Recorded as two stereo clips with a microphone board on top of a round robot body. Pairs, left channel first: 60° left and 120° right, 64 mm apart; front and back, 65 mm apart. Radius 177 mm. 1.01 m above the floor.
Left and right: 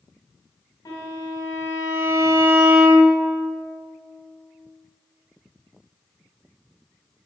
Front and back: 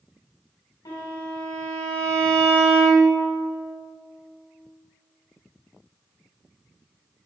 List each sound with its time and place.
0.8 s a violin: 25° left, 2 m